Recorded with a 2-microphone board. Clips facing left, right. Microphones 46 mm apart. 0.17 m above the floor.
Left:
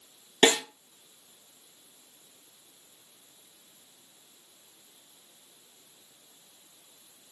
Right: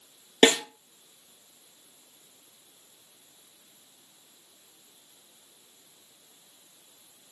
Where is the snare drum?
30° right (ahead or behind), 0.9 m.